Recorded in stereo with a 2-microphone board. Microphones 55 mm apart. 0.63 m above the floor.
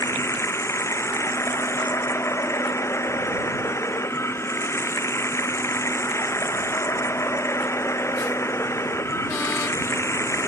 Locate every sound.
0.0 s running water: 60° left (ahead or behind)